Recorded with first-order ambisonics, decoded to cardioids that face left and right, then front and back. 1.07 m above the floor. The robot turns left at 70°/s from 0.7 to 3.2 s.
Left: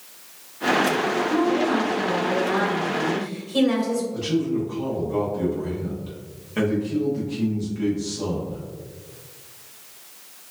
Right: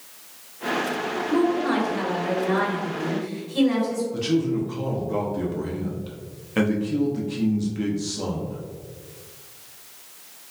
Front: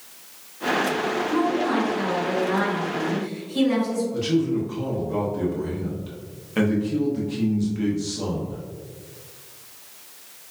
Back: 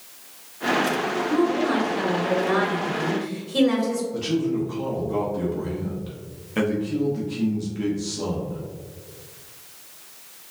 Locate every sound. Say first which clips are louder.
1.3 s a woman speaking: right 3 dB, back 2 dB; 80° right, 1.4 m; by 4.0 s 145° left, 1.4 m
4.1 s a man speaking: right 1 dB, front 1 dB; 85° right, 0.6 m